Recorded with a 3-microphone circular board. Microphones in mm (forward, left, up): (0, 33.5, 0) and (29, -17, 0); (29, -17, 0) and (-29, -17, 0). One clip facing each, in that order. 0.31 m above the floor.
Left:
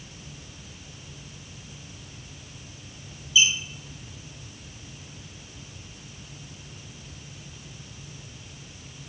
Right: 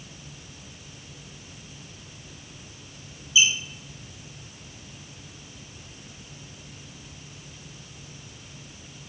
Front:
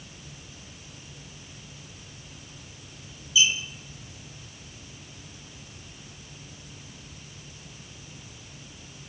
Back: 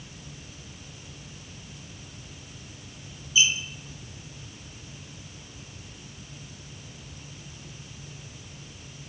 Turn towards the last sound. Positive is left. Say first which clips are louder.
# even, even
turn(degrees=-130)